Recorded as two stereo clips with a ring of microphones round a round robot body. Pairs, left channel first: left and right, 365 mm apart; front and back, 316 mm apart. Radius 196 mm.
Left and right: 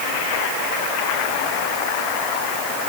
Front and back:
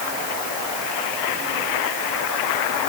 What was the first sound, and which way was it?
Only background noise.